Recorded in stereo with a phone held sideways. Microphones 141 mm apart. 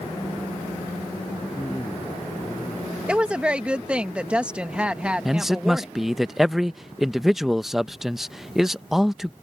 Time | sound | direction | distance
1.6 | a man speaking | 20° left (ahead or behind) | ?
3.1 | a woman speaking | 10° right (ahead or behind) | ?
5.2 | a man speaking | 5° right (ahead or behind) | ?